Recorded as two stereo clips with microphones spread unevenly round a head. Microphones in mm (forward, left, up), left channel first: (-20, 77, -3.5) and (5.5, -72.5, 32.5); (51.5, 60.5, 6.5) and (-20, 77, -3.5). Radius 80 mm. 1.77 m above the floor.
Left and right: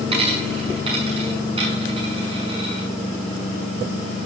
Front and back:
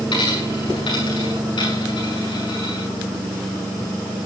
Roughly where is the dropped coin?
Ahead right.